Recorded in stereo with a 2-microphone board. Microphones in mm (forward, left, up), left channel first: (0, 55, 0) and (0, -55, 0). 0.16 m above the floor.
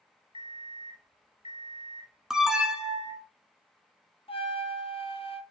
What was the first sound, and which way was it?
An alarm clock, 55° left (ahead or behind).